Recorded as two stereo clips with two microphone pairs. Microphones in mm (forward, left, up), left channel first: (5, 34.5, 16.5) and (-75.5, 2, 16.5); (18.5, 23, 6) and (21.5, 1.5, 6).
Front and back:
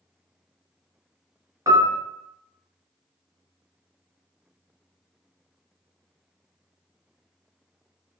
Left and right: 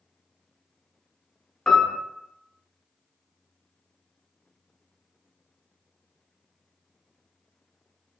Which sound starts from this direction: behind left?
A piano, at 1.7 s.